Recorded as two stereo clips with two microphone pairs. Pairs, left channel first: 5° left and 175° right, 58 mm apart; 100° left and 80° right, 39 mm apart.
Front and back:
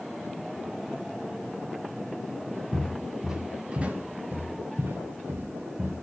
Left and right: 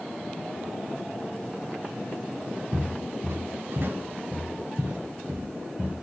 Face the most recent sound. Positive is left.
turn(degrees=-130)